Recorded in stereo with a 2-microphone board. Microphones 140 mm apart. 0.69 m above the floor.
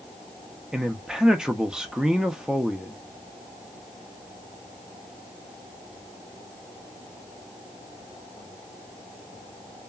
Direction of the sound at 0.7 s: 5° right (ahead or behind).